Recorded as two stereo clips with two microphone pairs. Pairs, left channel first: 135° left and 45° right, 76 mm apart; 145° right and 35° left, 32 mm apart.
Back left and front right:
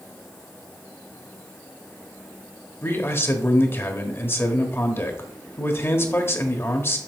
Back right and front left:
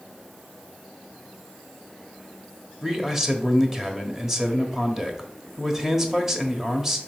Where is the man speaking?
105° left, 1.1 m.